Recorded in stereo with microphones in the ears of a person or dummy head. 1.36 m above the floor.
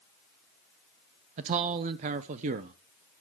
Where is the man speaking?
45° right (ahead or behind), 0.7 m.